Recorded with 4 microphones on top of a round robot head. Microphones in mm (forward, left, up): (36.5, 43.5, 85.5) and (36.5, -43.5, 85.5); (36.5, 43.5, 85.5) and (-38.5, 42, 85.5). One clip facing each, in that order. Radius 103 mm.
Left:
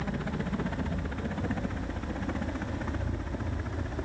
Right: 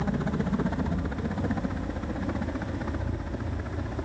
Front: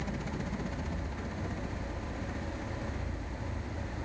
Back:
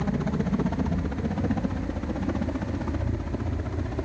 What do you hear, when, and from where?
0.0 s a helicopter: 155° right; by 4.0 s 175° right